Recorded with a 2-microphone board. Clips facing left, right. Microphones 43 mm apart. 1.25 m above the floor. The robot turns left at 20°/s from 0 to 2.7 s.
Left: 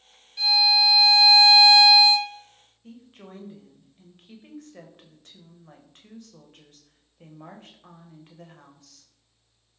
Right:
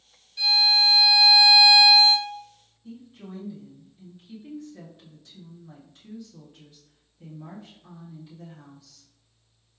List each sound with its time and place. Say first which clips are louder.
0.4 s a violin: left 1 dB; 175° left, 1.6 m; by 2.3 s 140° left, 1.6 m
2.8 s a woman speaking: right 3 dB; 50° left (ahead or behind), 0.8 m